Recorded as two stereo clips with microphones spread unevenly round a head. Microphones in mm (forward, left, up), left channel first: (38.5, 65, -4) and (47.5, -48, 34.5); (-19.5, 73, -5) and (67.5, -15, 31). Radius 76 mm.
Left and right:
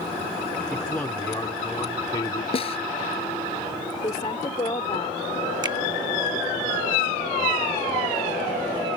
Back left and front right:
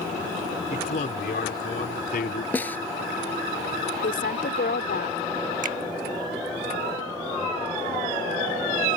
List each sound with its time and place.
0.7 s a man speaking: straight behind; by 2.4 s 155° left
2.5 s a snare drum: 55° left
4.0 s a woman speaking: 160° left
5.6 s a finger snap: 35° right